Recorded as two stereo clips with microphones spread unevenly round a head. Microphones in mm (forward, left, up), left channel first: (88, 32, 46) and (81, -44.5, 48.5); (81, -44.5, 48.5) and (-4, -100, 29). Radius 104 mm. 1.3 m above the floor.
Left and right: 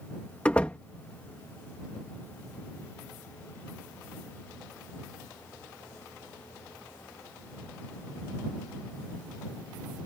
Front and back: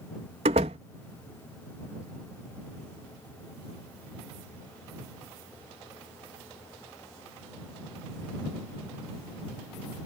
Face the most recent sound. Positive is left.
turn(degrees=165)